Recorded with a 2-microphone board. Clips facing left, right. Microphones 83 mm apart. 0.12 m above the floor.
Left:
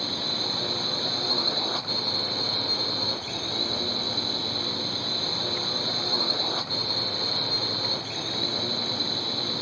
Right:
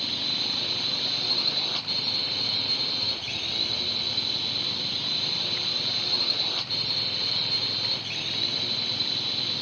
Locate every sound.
0.0 s a drone: 25° left (ahead or behind)